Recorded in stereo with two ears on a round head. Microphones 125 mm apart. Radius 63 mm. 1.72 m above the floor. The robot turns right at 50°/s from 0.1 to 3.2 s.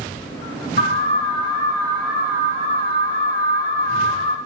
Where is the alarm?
115° left, 5 m; by 4.4 s 125° right, 5 m.